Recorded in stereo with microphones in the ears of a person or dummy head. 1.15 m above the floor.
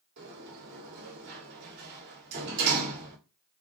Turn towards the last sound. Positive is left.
turn(degrees=-55)  # may be behind; listen again after turning